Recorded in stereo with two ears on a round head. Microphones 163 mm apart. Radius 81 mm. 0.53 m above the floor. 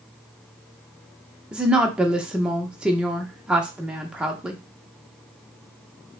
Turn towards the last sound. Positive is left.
turn(degrees=-5)  # may be behind; listen again after turning